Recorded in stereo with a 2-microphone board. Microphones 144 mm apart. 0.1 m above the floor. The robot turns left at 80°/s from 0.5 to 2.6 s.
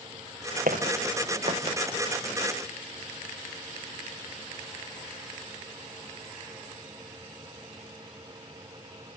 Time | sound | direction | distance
0.7 | footsteps | 80° right | 3 m